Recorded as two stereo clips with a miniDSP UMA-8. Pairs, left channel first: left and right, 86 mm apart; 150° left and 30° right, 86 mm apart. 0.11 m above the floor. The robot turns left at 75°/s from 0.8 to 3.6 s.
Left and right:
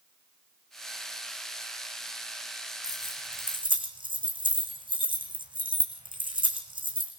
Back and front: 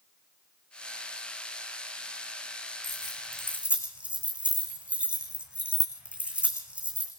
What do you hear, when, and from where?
2.8 s keys jangling: 50° right, 5 m; by 7.1 s 105° right, 5 m